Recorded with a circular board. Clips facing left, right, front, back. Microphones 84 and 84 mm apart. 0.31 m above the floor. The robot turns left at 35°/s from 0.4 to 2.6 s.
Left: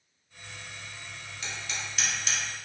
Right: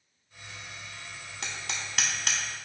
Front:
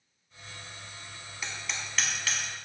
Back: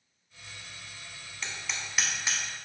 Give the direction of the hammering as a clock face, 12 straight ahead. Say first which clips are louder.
Even, even; 3 o'clock.